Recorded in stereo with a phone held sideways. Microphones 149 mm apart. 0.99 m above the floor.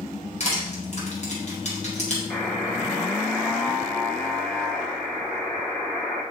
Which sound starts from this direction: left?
Crushing, at 0.4 s.